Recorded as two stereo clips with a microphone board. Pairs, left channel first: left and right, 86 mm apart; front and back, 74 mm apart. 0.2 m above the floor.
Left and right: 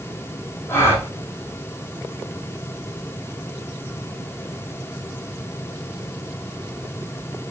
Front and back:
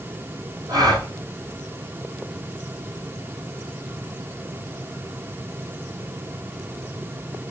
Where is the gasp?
155° left, 4 m.